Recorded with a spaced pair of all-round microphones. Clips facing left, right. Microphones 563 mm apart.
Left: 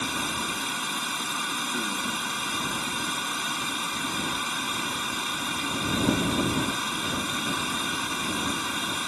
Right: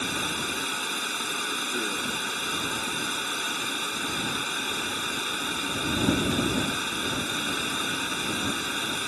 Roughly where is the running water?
Left.